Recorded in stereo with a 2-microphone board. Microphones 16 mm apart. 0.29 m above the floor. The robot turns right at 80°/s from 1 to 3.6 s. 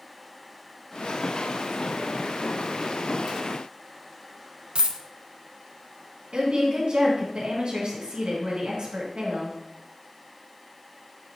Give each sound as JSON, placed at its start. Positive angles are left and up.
{"t": 4.8, "sound": "a dropped coin", "side_deg": -75, "distance_m": 0.7}
{"t": 6.3, "sound": "a woman speaking", "side_deg": -55, "distance_m": 3.0}